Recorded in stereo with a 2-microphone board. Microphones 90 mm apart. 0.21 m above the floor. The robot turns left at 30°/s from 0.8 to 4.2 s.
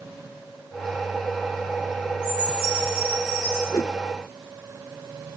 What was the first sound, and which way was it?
A chime, 10° right.